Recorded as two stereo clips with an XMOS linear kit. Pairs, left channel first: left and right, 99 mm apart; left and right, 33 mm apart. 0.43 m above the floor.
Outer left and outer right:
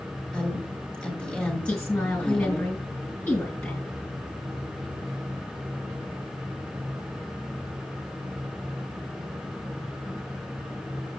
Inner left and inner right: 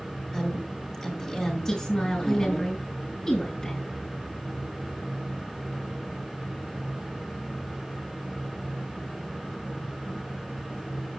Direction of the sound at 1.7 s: 15° left (ahead or behind).